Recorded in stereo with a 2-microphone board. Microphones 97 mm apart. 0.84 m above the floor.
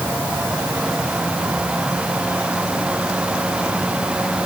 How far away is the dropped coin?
No dropped coin in this recording.